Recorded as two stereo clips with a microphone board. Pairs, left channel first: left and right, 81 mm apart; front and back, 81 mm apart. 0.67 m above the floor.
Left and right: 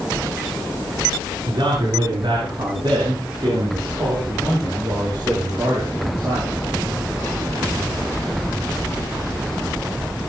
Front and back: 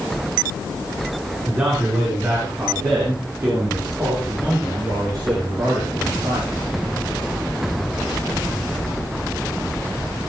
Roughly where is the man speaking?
Behind right.